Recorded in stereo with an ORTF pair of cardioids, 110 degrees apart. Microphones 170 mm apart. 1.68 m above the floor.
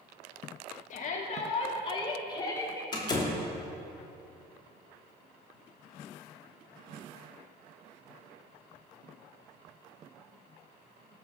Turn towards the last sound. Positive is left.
turn(degrees=25)